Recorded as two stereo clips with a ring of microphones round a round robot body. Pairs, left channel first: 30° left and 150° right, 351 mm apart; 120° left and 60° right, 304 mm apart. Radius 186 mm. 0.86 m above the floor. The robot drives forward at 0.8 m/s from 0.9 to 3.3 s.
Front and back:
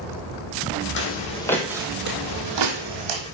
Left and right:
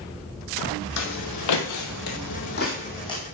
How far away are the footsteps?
About 1.9 m.